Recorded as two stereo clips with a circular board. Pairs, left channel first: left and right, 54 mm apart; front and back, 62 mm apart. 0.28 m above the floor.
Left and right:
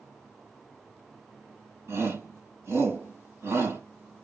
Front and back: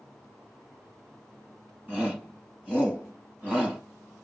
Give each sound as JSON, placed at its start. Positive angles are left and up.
{"t": 1.9, "sound": "a shout", "azimuth_deg": -105, "distance_m": 3.5}